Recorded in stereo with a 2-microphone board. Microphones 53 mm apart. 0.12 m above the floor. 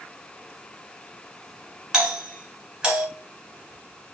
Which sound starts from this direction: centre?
A doorbell, at 1.9 s.